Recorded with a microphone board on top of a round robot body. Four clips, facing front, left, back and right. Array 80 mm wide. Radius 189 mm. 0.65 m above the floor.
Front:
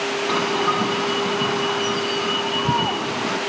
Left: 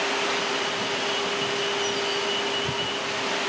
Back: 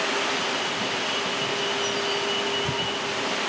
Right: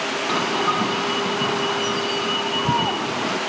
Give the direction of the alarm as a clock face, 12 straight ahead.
2 o'clock.